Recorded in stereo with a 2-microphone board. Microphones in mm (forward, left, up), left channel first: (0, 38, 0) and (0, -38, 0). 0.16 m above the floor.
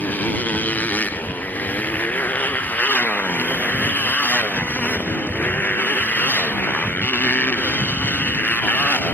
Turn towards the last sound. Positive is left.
turn(degrees=20)  # may be behind; listen again after turning